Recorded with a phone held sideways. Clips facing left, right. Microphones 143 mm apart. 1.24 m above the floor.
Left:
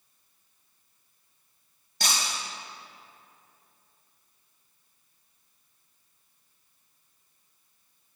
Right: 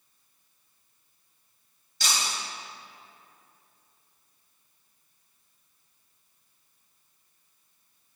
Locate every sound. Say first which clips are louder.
2.0 s breaking glass: even; 55° left (ahead or behind), 1.6 m